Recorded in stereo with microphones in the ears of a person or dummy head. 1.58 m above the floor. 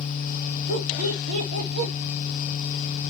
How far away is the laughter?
About 2 m.